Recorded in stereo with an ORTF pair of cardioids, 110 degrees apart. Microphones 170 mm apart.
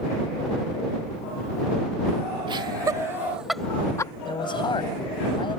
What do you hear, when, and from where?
2.5 s laughter: 30° right; by 4.1 s 25° left
4.2 s a man speaking: 30° left